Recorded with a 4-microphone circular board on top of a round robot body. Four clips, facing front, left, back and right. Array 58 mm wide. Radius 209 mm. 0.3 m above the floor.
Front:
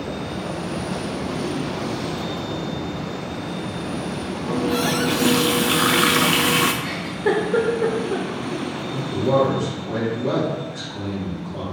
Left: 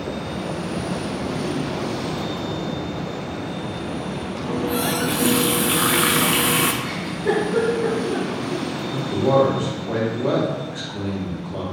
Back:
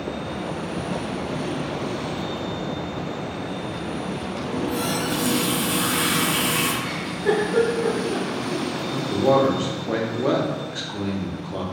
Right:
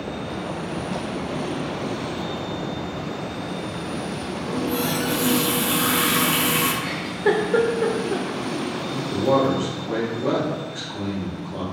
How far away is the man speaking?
About 1.3 m.